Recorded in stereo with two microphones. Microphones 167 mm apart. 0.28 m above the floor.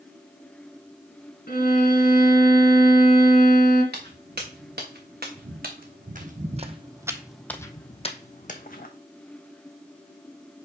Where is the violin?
55° left (ahead or behind), 2.5 m.